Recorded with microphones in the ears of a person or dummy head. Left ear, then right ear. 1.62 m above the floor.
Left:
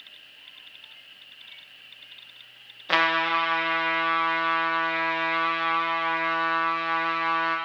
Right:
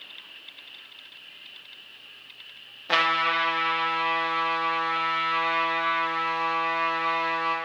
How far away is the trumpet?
About 0.7 m.